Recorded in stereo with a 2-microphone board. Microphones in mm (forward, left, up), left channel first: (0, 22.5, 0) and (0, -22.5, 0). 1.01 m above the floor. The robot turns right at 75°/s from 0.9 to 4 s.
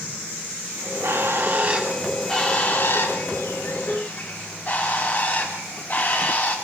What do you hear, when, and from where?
0.8 s a bird: 90° right, 6.5 m; by 6.5 s 145° left, 6.5 m